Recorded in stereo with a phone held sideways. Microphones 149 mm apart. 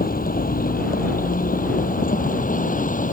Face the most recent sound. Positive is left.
turn(degrees=65)  # may be behind; listen again after turning